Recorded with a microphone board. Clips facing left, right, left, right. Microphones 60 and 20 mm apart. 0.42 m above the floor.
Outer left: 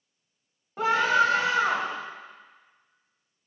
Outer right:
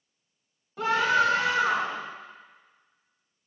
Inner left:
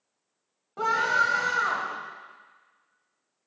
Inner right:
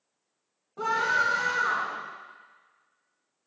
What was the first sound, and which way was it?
A scream, 40° left (ahead or behind).